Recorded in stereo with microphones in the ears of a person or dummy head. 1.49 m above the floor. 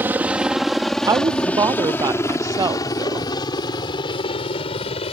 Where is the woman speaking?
20° right (ahead or behind).